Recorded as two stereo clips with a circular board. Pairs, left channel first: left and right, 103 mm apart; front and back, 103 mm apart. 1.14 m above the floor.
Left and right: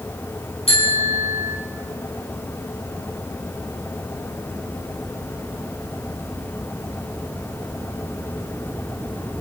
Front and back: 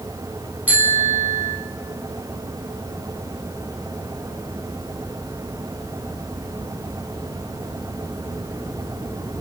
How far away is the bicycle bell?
About 7 m.